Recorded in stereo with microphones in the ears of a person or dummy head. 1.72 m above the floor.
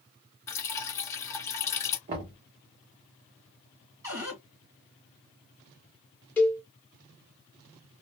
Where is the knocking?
30° right (ahead or behind), 0.8 m.